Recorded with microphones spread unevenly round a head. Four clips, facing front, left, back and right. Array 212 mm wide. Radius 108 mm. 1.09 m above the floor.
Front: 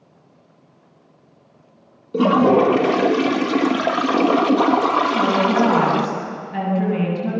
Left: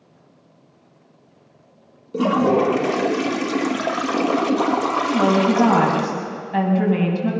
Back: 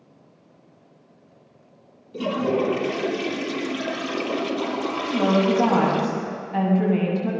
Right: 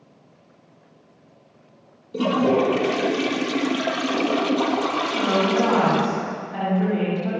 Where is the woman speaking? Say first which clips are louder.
Left 6 dB, front 2 dB; 70° left, 7.5 m.